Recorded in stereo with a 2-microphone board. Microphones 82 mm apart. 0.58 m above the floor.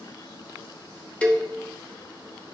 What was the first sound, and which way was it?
A cowbell, 15° left (ahead or behind).